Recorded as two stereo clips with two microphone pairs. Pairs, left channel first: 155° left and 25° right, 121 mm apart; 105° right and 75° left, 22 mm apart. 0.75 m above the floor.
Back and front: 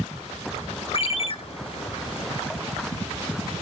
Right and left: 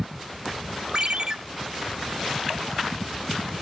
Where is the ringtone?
115° left, 0.8 m.